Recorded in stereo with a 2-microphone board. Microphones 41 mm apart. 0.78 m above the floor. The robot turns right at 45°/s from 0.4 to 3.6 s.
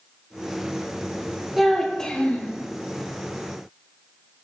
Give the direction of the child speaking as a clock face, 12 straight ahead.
12 o'clock.